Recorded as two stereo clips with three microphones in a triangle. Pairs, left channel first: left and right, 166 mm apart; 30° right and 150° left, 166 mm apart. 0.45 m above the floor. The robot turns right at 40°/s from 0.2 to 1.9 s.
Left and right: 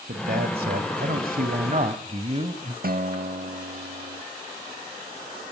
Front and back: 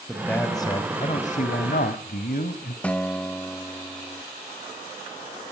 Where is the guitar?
115° right, 0.7 m.